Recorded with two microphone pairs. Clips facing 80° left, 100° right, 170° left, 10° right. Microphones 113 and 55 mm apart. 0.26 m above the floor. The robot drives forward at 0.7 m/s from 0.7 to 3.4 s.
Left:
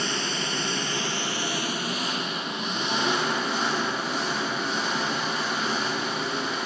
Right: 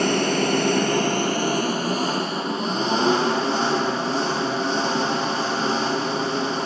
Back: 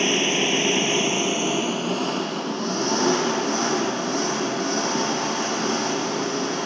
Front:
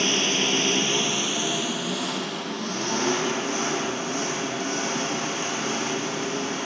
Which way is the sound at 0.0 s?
125° right.